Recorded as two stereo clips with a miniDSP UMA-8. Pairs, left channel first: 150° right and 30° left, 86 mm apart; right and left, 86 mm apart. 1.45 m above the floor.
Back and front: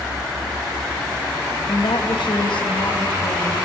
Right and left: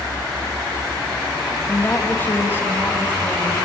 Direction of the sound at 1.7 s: 155° right.